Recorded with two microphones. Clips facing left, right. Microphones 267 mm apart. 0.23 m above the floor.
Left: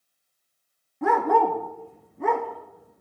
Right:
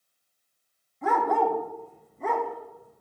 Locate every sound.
1.0 s a dog barking: 70° left (ahead or behind), 1.0 m